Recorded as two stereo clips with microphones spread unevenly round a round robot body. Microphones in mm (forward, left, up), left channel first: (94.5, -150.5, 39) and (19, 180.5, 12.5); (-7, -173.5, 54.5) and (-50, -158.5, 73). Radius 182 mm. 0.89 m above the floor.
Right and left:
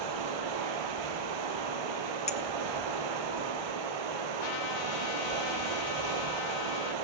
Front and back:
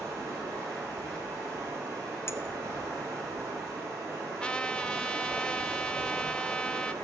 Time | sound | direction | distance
0.0 | running water | 110° left | 4 m
2.3 | a clink | 5° right | 0.9 m
4.4 | a trumpet | 95° right | 1.8 m